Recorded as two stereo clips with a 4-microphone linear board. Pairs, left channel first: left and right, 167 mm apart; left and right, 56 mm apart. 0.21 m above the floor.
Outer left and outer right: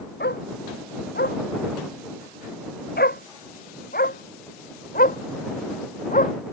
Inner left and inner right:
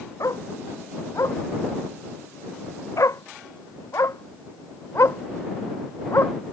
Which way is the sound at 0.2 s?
80° left.